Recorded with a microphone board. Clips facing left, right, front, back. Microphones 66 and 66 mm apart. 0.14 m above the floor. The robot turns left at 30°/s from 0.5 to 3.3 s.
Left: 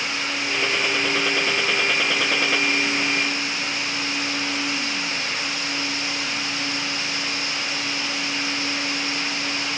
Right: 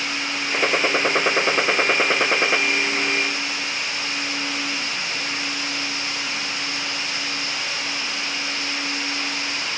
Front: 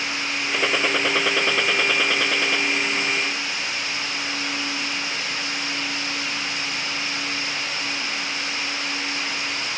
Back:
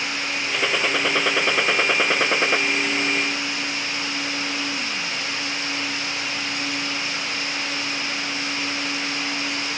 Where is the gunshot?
80° right; by 2.6 s 140° right.